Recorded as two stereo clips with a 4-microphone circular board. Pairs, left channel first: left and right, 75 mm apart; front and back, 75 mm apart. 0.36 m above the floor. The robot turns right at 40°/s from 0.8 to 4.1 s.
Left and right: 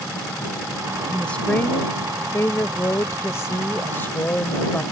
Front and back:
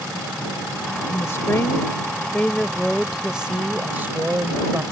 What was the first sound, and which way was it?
A woman speaking, 15° left.